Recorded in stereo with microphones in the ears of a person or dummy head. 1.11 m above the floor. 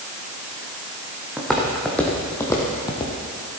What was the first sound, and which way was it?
Footsteps, centre (ahead or behind).